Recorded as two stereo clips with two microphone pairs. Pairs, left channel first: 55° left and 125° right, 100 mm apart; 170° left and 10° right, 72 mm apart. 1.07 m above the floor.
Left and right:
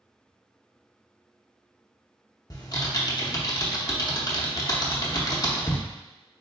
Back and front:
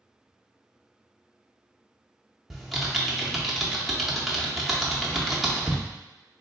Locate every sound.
2.5 s typing on a keyboard: 75° left, 0.7 m